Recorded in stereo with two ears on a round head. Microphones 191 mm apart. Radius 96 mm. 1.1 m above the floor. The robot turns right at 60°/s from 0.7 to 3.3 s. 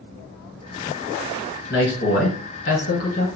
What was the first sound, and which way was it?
A man speaking, 55° left.